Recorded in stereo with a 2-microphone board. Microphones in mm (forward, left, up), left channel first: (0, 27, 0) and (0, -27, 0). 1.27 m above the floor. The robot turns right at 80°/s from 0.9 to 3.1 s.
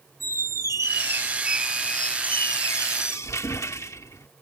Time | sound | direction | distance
0.2 | a squeak | 70° right | ?